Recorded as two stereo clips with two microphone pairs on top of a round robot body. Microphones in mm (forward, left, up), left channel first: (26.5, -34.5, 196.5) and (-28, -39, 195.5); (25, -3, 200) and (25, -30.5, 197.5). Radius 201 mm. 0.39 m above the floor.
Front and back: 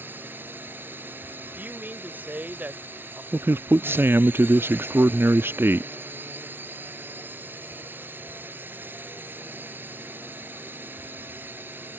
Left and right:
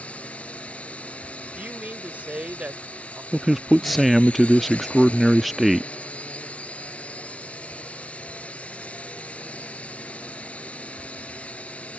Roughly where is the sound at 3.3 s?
Behind.